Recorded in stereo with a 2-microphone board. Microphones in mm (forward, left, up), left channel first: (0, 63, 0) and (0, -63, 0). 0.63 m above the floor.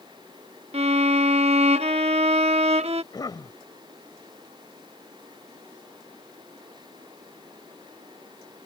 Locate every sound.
0.7 s a violin: 55° right (ahead or behind)
3.1 s a cough: 35° left (ahead or behind)